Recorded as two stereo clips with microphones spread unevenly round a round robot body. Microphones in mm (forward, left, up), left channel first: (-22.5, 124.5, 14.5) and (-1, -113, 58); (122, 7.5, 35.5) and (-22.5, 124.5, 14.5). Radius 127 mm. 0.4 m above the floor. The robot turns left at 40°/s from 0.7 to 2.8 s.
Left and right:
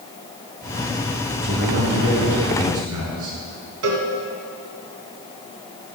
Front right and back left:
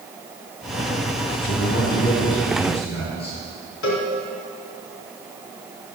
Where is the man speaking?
35° right, 5 m; by 3.4 s 90° right, 5 m.